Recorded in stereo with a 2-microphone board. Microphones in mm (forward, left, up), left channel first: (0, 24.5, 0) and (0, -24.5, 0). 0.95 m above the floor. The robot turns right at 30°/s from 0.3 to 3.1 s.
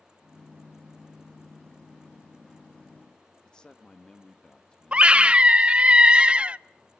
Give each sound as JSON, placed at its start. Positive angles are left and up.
{"t": 3.5, "sound": "a man speaking", "side_deg": 15, "distance_m": 1.3}
{"t": 4.9, "sound": "a scream", "side_deg": -20, "distance_m": 0.5}